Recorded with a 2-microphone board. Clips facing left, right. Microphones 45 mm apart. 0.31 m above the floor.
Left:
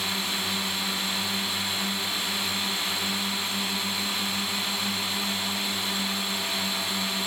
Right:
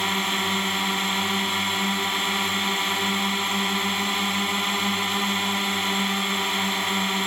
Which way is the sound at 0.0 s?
45° right (ahead or behind).